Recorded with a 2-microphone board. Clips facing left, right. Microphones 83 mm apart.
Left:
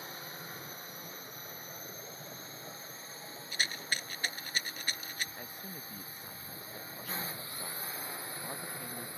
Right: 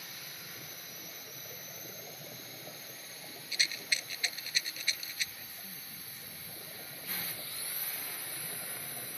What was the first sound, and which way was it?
A drone, 30° left (ahead or behind).